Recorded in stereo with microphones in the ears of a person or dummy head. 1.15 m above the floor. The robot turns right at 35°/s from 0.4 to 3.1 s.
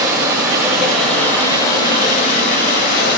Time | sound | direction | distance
0.0 | running water | 15° right | 2 m